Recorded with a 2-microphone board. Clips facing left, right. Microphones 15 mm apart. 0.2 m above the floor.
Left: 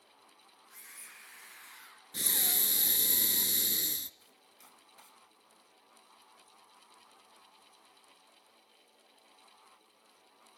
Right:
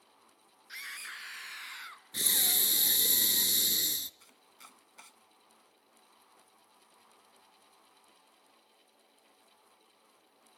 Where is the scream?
65° right (ahead or behind), 3 m; by 2.0 s 40° right (ahead or behind), 1.7 m.